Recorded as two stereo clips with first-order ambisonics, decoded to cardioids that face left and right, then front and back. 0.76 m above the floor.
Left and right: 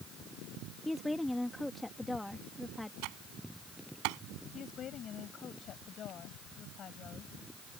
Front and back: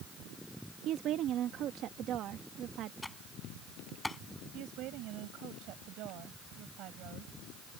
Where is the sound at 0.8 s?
175° left.